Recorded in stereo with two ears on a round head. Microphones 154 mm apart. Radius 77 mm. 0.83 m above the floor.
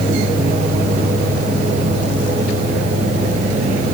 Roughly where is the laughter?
No laughter in this recording.